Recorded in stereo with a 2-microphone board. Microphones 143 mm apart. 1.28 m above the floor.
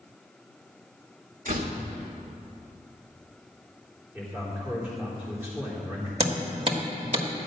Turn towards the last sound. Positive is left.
turn(degrees=-45)  # may be behind; listen again after turning